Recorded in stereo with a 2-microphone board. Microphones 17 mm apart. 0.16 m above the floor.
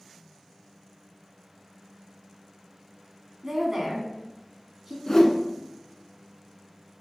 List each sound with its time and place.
3.4 s a woman speaking: 25° right (ahead or behind), 1.0 m
5.1 s a whoosh: 30° left (ahead or behind), 0.6 m